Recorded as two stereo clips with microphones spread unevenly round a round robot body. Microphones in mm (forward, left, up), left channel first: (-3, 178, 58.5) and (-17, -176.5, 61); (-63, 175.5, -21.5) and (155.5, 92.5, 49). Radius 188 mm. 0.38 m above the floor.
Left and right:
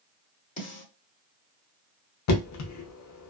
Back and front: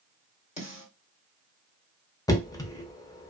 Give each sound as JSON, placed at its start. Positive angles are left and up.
{"t": 0.6, "sound": "a snare drum", "azimuth_deg": 145, "distance_m": 1.9}
{"t": 2.3, "sound": "knocking", "azimuth_deg": 105, "distance_m": 0.7}